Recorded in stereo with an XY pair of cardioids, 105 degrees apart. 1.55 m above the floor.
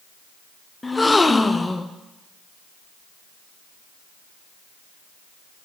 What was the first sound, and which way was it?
A gasp, 15° left.